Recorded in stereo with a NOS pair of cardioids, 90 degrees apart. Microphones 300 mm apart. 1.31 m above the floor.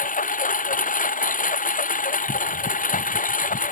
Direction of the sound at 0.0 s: 25° left.